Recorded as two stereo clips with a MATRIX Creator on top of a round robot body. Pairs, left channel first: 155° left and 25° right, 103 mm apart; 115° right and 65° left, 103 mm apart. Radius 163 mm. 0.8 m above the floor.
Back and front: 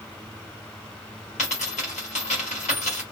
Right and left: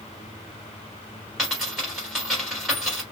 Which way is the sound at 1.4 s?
160° left.